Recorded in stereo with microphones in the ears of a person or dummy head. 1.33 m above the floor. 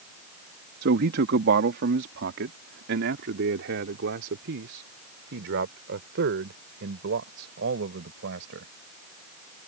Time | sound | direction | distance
0.8 | a man speaking | 65° right (ahead or behind) | ?